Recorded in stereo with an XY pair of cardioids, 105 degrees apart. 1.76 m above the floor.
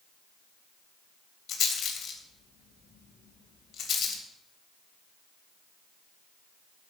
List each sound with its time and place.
1.5 s a rattle: 55° left, 3 m